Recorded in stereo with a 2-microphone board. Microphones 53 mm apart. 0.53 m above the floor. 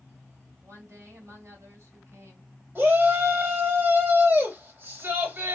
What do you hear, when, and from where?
0.6 s a woman speaking: 65° right (ahead or behind), 2.5 m
2.8 s a shout: 40° right (ahead or behind), 3 m